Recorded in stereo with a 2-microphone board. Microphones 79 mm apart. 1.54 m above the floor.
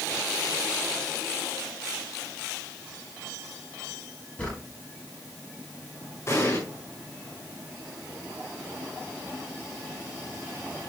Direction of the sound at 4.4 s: 15° left (ahead or behind).